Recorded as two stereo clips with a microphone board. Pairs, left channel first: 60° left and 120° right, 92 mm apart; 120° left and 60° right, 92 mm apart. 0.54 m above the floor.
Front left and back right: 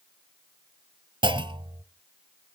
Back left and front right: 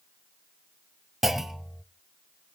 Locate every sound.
1.2 s a clunk: 145° right, 0.6 m